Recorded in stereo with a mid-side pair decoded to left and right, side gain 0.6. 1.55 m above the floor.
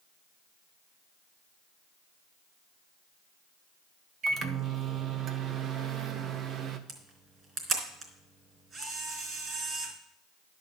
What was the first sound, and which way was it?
A microwave, 45° right.